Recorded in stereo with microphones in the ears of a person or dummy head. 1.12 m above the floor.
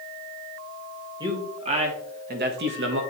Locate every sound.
1.2 s a man speaking: 25° right (ahead or behind), 1.7 m; by 3.0 s 65° right (ahead or behind), 1.6 m